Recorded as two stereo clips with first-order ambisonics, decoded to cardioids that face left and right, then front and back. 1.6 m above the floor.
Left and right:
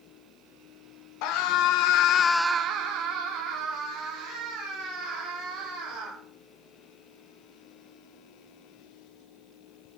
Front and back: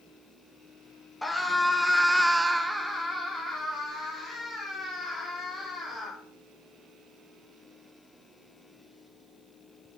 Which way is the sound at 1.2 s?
90° left.